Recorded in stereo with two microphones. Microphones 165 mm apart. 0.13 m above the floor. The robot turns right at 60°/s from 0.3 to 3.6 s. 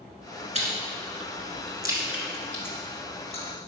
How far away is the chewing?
About 1.3 m.